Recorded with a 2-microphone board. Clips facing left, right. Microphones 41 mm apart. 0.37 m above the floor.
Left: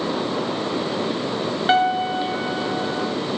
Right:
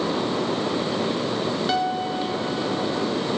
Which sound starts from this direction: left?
A piano, at 1.7 s.